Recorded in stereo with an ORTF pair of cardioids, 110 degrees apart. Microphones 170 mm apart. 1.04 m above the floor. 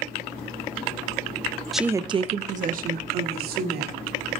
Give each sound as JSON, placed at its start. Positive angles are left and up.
{"t": 1.7, "sound": "a woman speaking", "azimuth_deg": 0, "distance_m": 0.7}